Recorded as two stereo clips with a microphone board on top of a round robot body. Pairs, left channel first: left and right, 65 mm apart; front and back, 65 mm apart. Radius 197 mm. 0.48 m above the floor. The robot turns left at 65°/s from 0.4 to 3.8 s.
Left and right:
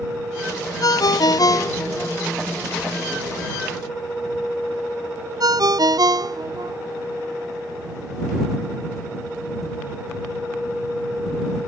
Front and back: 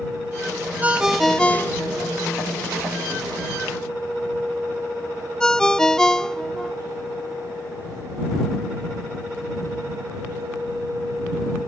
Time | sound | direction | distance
0.8 | a ringtone | 115° left | ?